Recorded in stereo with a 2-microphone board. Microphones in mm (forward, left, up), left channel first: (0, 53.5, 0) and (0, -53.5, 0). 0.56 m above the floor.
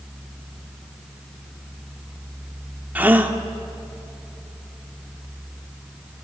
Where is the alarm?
No alarm in this recording.